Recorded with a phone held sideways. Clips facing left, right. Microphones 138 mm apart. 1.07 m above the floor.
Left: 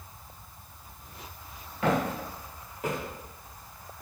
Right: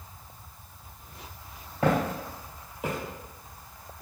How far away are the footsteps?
About 1.4 m.